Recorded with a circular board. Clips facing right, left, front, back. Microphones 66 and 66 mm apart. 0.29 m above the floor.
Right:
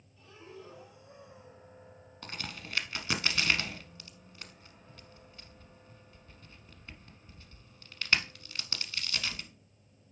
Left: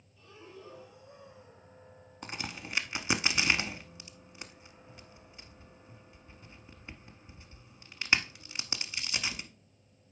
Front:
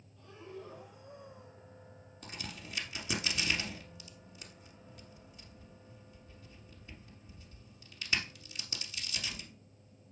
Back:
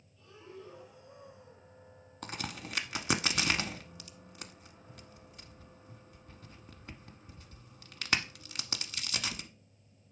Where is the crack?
160° left, 0.8 m.